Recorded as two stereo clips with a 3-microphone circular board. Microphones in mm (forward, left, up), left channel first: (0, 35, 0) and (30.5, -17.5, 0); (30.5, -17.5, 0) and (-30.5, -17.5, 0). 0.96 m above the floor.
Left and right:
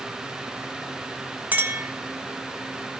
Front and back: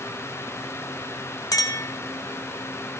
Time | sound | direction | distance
1.5 | a clink | straight ahead | 0.9 m